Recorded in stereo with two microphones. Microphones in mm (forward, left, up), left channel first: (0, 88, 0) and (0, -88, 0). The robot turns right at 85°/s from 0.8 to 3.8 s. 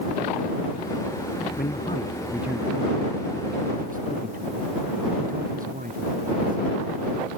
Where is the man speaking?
115° left; by 7.1 s 55° right.